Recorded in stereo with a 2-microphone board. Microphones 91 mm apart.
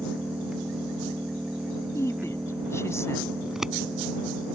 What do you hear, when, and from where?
0.0 s an engine running: 10° right (ahead or behind)
1.9 s a woman speaking: 30° left (ahead or behind)
3.4 s scissors: 5° right (ahead or behind)